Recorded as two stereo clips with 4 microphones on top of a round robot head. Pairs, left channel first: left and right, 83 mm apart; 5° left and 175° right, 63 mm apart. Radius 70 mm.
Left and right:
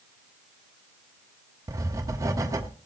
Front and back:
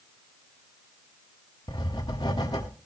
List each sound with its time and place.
1.7 s writing: 40° right, 1.3 m